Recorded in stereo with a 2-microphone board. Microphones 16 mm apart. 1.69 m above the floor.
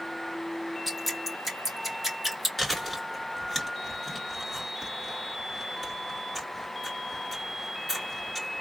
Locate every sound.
0.9 s dripping: 5° right (ahead or behind), 2 m
2.6 s chewing: 15° left (ahead or behind), 3 m